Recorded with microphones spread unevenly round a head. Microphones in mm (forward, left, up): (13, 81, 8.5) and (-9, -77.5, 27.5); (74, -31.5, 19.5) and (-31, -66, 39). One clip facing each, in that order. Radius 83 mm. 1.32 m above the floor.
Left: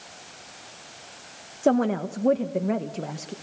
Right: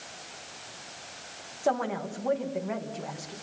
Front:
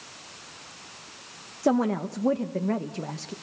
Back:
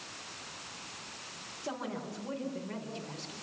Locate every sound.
1.6 s a woman speaking: 40° left, 1.1 m